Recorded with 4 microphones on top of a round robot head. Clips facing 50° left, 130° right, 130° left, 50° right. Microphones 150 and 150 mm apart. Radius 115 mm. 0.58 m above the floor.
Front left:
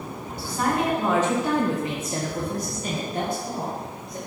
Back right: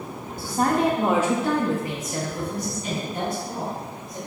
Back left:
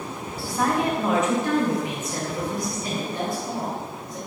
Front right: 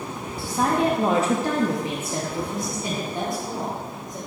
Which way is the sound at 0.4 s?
115° right.